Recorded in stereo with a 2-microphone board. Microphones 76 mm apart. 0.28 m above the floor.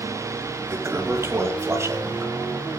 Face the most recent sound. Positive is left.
turn(degrees=-35)  # may be behind; listen again after turning